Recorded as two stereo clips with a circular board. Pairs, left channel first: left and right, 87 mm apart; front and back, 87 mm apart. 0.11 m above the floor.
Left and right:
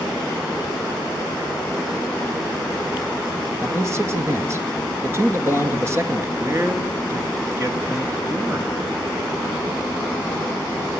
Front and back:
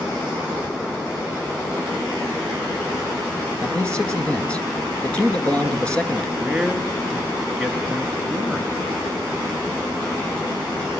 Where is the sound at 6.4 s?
100° right, 1.6 m.